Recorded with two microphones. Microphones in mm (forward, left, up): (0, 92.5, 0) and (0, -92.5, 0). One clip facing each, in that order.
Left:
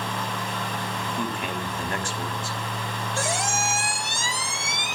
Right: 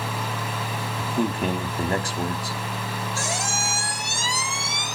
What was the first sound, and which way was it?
A man speaking, 35° right (ahead or behind).